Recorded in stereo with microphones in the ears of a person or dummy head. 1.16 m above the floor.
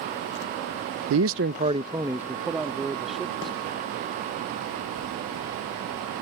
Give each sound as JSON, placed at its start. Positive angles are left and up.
{"t": 1.1, "sound": "a man speaking", "side_deg": -75}